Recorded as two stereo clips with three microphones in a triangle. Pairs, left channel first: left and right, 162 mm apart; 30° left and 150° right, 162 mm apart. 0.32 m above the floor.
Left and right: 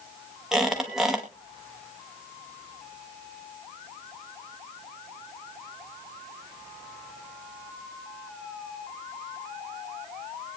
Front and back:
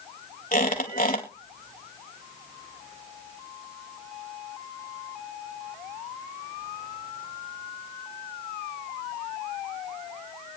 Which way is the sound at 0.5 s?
5° right.